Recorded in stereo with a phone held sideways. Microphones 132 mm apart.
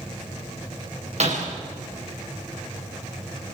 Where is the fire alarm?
I don't hear a fire alarm.